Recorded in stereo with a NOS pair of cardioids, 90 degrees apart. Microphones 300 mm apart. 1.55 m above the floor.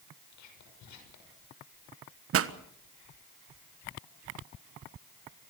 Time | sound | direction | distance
0.3 | whispering | 65° left | 6 m
2.3 | a pop | 50° right | 1.4 m